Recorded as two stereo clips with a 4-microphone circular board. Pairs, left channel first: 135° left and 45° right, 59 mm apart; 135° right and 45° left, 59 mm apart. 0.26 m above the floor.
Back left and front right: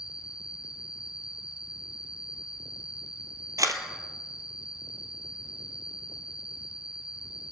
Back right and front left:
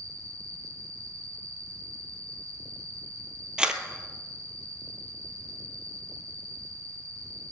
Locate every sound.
0.0 s an insect: 30° left, 1.5 m
3.6 s a camera shutter: 30° right, 1.3 m